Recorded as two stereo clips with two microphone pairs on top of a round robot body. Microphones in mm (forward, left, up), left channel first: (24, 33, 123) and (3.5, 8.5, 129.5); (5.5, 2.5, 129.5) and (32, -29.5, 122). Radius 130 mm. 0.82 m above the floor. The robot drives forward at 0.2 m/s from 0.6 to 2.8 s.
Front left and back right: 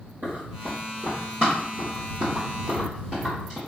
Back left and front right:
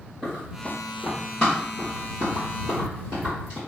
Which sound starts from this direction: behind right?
Running footsteps, at 0.2 s.